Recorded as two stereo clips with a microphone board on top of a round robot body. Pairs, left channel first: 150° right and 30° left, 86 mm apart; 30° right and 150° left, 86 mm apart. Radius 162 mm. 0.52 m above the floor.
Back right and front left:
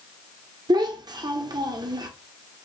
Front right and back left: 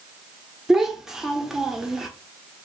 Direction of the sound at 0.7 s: 65° left.